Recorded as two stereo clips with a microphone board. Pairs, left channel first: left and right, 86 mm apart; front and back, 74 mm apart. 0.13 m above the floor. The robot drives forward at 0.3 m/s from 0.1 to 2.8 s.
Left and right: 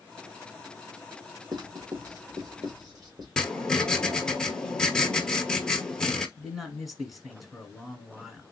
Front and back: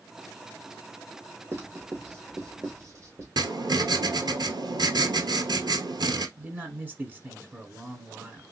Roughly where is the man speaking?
Behind.